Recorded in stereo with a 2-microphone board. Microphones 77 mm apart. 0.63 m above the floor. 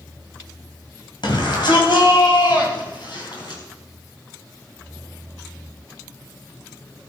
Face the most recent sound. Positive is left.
turn(degrees=70)  # may be behind; listen again after turning